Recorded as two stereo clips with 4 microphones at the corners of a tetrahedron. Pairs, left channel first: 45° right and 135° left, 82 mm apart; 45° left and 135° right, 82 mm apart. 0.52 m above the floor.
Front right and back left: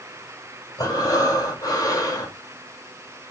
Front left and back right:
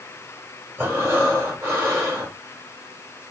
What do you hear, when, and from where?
0.8 s breathing: 80° right, 1.3 m